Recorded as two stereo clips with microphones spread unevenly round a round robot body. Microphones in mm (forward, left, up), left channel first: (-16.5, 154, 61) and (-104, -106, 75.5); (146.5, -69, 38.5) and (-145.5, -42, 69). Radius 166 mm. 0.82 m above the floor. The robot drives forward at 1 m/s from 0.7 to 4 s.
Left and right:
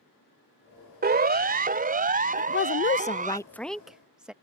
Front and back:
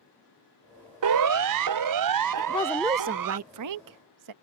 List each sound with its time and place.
1.0 s a siren: 165° right; by 3.4 s 170° right
2.4 s a woman speaking: 35° left; by 4.3 s 165° left